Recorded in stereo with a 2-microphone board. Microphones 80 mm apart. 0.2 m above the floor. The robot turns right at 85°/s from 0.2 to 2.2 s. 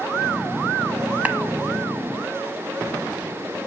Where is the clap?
20° right (ahead or behind), 1.2 m.